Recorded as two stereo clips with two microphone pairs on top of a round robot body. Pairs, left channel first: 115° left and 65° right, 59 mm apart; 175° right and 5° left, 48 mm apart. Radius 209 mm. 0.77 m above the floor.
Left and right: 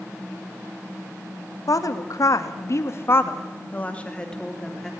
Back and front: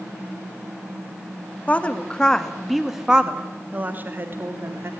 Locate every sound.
1.7 s a woman speaking: 120° left, 2.5 m; by 4.9 s 30° left, 3.5 m